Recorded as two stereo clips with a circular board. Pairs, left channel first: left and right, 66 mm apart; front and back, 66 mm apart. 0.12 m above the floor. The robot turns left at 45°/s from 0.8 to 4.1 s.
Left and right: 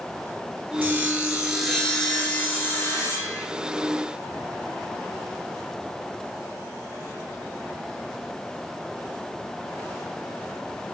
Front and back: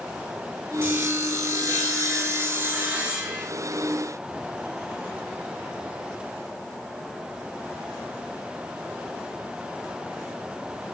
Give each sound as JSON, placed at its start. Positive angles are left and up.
{"t": 0.8, "sound": "sawing", "azimuth_deg": -140, "distance_m": 0.7}